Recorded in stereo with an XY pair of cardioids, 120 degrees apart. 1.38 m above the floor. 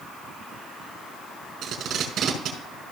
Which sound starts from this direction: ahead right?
Tape being pulled, at 1.6 s.